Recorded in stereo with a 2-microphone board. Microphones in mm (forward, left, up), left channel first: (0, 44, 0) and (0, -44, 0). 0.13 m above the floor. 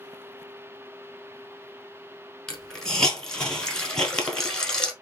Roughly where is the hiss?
Centre.